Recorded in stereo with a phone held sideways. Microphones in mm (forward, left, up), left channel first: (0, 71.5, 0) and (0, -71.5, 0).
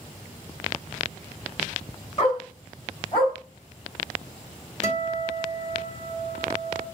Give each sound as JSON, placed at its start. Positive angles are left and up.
{"t": 2.2, "sound": "a dog barking", "side_deg": 40, "distance_m": 5.0}
{"t": 4.8, "sound": "a guitar", "side_deg": 55, "distance_m": 2.5}